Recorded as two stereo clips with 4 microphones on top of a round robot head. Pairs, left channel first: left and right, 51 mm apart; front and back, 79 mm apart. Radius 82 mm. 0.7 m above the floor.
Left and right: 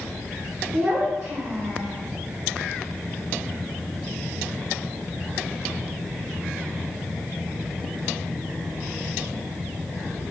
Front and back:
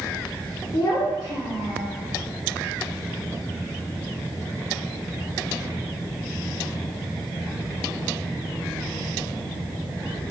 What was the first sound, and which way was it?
A child speaking, 35° right.